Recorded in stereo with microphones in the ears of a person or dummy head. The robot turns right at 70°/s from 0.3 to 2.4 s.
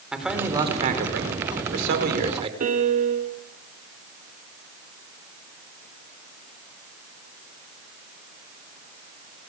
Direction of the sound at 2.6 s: 45° right (ahead or behind).